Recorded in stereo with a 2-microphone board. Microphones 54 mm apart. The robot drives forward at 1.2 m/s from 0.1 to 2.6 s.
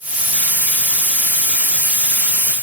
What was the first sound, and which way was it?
Only background noise.